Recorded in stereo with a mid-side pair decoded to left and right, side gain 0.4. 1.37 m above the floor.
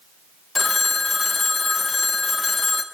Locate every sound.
0.6 s a phone ringing: 40° left, 1.1 m